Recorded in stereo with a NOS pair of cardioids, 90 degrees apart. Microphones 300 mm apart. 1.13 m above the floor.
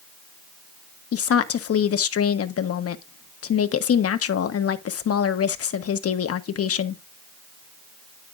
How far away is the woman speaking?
About 1.2 m.